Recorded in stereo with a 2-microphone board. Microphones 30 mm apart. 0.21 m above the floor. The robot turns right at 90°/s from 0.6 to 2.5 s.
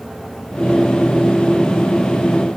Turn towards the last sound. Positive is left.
No sound to turn to.